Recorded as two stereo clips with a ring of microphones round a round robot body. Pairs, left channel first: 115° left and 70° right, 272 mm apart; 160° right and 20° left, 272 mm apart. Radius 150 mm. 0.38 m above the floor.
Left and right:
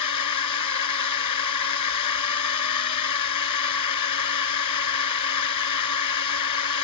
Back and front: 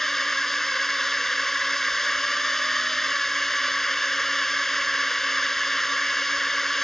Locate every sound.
0.0 s a drone: 115° left